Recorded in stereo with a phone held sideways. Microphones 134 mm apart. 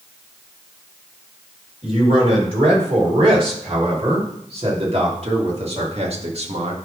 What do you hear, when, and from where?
1.8 s a man speaking: 45° right (ahead or behind), 4 m; by 6.8 s 50° right (ahead or behind), 1.6 m